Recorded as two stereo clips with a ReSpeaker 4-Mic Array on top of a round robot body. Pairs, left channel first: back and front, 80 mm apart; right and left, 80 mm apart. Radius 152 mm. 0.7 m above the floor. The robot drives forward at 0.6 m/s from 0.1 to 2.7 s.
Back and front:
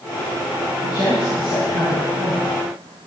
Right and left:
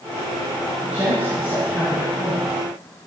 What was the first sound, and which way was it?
A woman speaking, 160° left.